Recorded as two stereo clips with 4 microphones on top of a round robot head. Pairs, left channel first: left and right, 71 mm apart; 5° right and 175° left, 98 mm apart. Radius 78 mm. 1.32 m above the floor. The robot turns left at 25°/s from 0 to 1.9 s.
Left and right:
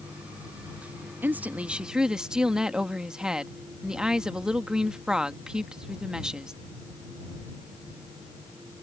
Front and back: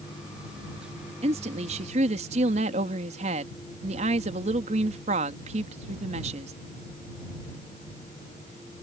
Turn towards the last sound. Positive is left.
turn(degrees=-170)